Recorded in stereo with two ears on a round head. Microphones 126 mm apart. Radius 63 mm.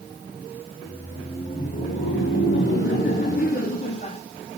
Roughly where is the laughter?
Left.